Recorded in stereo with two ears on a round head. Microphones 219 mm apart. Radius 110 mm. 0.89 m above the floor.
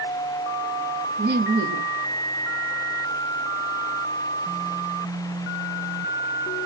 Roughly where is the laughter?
Right.